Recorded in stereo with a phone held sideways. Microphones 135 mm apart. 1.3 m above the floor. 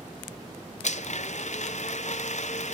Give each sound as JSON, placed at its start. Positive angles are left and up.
{"t": 0.8, "sound": "a blender", "side_deg": 65, "distance_m": 0.6}